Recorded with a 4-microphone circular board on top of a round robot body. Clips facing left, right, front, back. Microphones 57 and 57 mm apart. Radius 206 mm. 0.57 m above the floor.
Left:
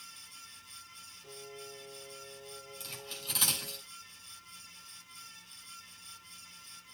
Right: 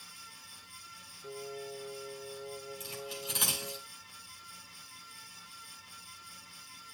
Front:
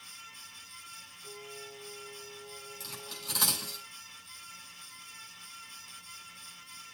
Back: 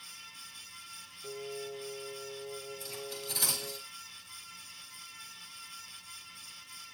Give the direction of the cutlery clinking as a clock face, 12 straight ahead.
12 o'clock.